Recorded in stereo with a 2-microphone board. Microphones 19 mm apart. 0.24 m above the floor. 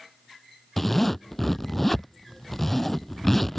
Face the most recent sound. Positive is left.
turn(degrees=15)  # may be behind; listen again after turning